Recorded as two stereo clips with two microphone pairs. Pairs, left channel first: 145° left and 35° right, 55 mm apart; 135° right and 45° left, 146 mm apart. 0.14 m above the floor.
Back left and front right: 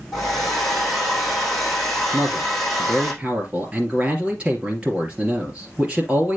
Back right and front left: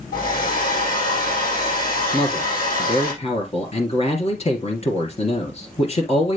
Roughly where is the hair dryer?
Behind right.